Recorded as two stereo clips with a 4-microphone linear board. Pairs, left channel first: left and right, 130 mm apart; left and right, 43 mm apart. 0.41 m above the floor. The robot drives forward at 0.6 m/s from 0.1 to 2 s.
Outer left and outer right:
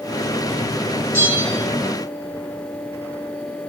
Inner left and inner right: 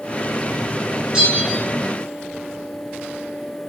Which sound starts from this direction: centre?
A bell, at 1.1 s.